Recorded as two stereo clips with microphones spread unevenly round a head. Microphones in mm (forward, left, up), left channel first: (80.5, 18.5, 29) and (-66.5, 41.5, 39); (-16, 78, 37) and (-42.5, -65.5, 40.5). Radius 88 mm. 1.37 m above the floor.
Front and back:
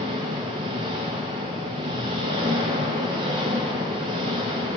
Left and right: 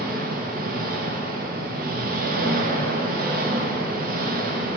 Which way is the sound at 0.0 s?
125° right.